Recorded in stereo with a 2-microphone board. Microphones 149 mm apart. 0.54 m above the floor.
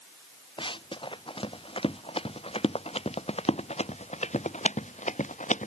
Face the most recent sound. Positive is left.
turn(degrees=55)  # may be behind; listen again after turning